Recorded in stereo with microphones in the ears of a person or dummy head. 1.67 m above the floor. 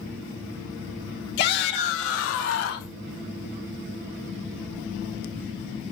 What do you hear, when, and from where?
1.4 s a shout: 60° left (ahead or behind), 3 m; by 2.9 s 75° left (ahead or behind), 3.5 m